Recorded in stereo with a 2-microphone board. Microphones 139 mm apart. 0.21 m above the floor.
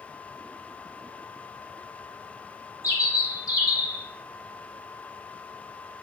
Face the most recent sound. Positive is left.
turn(degrees=25)  # may be behind; listen again after turning